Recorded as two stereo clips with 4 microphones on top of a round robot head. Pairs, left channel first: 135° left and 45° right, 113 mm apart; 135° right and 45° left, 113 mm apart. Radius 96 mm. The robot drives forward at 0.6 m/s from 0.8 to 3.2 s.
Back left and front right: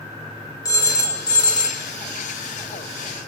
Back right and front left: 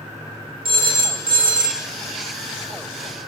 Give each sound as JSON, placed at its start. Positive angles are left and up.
{"t": 0.7, "sound": "a phone ringing", "azimuth_deg": 80, "distance_m": 3.0}